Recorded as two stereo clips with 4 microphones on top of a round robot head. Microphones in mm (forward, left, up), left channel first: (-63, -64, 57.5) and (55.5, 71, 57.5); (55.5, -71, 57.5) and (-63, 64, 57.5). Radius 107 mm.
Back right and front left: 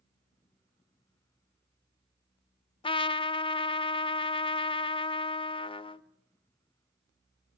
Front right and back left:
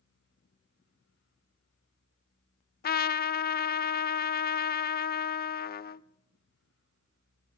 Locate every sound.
2.8 s a trumpet: 75° right, 0.6 m